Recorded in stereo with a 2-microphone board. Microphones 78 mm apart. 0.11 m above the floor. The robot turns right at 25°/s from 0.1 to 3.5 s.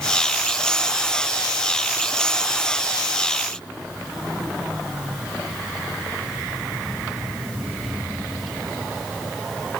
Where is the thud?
I don't hear a thud.